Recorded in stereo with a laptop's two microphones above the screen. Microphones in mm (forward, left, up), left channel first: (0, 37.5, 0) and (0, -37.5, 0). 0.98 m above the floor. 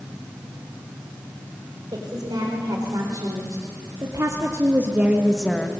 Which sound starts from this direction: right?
A woman speaking, at 1.9 s.